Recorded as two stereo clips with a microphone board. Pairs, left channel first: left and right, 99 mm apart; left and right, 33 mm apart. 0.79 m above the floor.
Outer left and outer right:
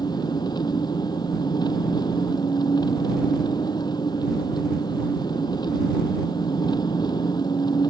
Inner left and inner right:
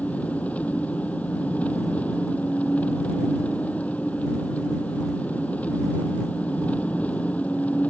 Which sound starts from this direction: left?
An engine running, at 0.0 s.